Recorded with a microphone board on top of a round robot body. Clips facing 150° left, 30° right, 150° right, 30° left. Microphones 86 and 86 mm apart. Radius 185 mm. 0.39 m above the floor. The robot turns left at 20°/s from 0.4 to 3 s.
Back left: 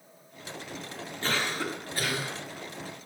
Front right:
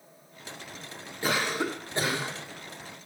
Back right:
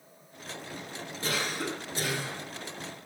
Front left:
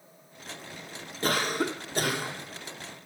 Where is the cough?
45° left, 1.4 m; by 2.4 s 25° left, 1.4 m.